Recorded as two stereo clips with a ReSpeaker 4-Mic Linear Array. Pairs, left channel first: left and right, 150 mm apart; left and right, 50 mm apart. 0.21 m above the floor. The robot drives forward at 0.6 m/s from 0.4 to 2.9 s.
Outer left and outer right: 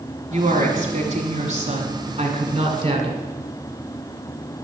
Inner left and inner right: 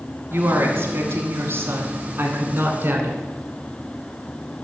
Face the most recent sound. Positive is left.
turn(degrees=-40)  # may be behind; listen again after turning